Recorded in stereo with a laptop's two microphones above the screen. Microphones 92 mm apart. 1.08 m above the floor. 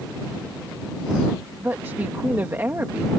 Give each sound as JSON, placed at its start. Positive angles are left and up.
{"t": 1.6, "sound": "a woman speaking", "side_deg": -25}